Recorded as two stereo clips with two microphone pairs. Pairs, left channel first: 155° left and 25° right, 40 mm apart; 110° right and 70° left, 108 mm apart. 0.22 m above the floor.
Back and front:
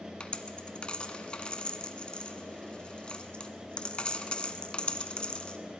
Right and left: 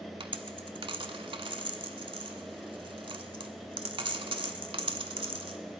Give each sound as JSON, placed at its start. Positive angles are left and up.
{"t": 0.2, "sound": "a dropped coin", "azimuth_deg": 95, "distance_m": 0.8}